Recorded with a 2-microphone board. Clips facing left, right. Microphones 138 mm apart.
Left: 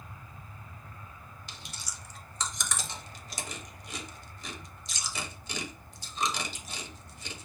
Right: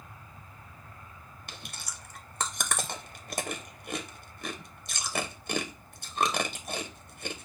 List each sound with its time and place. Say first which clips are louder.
1.5 s chewing: right 4 dB; 55° right (ahead or behind), 0.6 m